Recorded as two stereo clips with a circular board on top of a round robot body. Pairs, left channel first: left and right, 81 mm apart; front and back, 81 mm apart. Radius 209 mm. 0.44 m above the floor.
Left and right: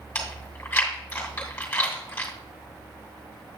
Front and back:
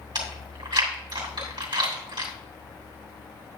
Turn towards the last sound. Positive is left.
turn(degrees=155)